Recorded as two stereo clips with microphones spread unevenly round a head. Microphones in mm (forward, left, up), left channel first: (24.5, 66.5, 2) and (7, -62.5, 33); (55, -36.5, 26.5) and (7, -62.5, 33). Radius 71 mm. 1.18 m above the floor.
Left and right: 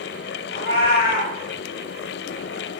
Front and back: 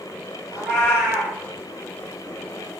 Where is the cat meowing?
110° left, 2 m.